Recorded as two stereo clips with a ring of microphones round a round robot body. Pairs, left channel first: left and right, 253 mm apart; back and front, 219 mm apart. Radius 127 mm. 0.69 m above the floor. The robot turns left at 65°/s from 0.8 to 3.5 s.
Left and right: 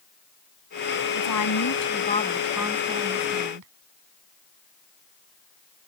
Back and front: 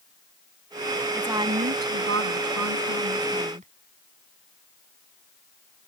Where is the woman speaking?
90° left; by 3.7 s 65° right.